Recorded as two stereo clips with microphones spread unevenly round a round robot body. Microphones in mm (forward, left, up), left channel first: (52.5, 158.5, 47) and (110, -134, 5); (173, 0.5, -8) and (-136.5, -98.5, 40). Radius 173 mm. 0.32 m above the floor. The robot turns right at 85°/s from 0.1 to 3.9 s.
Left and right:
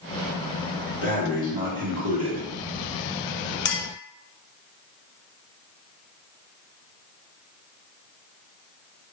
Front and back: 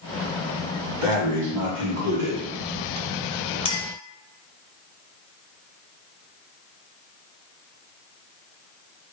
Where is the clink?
65° left, 0.5 m; by 3.9 s 85° left, 0.5 m.